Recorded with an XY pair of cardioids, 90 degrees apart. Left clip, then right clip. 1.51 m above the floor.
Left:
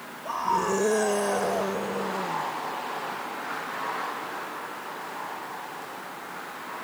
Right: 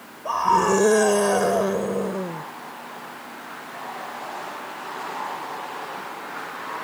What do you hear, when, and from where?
0.2 s a scream: 50° right